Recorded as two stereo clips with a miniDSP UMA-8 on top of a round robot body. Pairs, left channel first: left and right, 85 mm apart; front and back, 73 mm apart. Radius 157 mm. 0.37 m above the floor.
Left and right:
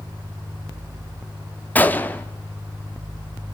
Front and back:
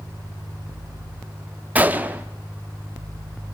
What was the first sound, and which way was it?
A gunshot, 140° left.